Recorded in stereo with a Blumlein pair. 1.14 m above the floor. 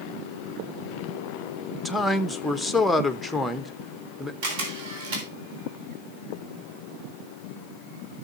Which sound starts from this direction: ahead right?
A camera shutter, at 4.4 s.